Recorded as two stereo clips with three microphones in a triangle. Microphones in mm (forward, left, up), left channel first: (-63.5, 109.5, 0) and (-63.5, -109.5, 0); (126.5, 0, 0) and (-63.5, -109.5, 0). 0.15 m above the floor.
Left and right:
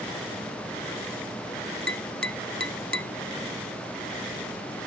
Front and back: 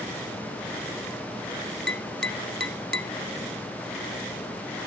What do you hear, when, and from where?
1.9 s tapping: 125° right, 0.8 m